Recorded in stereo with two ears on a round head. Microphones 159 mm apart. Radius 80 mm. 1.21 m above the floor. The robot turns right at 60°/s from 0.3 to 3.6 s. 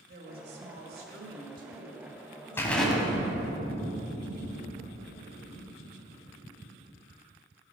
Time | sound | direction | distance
0.1 | a woman speaking | 125° right | 1.9 m
2.6 | an explosion | 165° left | 1.6 m